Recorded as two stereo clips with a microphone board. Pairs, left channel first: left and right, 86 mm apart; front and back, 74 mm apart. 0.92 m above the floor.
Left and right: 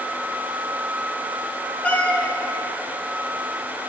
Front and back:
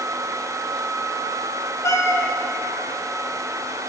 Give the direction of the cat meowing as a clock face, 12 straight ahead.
11 o'clock.